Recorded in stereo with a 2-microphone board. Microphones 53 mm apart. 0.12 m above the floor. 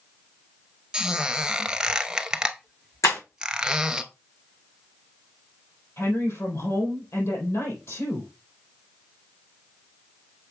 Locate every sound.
0.9 s a squeak: 15° right (ahead or behind), 0.7 m
3.0 s breaking glass: 80° left, 3.5 m
6.0 s a woman speaking: 60° left (ahead or behind), 4.5 m